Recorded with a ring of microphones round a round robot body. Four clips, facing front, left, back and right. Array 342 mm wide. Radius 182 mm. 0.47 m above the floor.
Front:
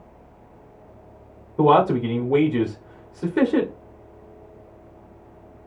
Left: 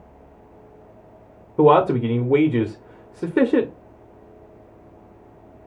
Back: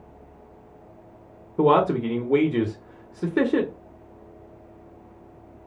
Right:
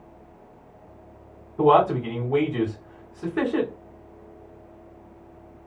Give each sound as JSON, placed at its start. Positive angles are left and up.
{"t": 1.6, "sound": "a man speaking", "azimuth_deg": 100, "distance_m": 1.2}